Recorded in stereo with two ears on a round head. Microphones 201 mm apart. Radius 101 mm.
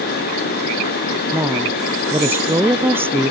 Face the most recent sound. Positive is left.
turn(degrees=-10)  # may be behind; listen again after turning